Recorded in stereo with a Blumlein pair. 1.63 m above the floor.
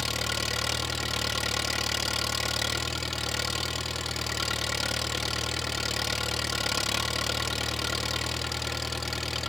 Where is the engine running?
10° left.